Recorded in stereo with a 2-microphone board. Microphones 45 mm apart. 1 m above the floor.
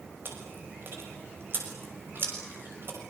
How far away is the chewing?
About 6 m.